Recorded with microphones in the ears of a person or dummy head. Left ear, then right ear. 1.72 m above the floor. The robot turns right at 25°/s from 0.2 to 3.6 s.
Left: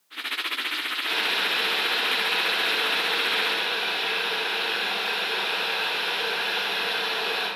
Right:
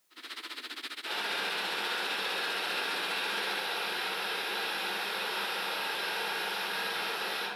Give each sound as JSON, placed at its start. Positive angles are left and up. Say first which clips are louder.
{"t": 1.0, "sound": "boiling", "louder": "left 7 dB", "azimuth_deg": -150, "distance_m": 3.5}